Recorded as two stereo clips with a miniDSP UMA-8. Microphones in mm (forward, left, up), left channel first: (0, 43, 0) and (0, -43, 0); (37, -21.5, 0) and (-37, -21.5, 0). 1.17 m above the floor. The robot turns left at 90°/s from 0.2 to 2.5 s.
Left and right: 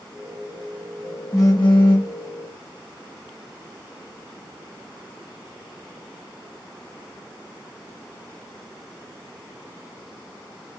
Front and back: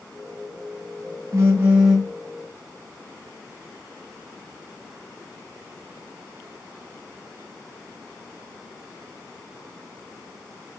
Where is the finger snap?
No finger snap in this recording.